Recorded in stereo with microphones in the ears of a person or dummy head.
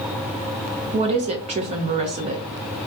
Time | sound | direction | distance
0.9 | a woman speaking | 35° right (ahead or behind) | 0.6 m